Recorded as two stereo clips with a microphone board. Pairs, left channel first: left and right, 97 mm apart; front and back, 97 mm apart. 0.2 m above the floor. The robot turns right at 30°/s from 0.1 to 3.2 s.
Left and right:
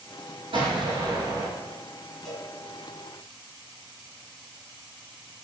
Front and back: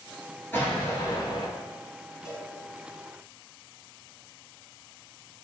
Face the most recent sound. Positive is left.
turn(degrees=30)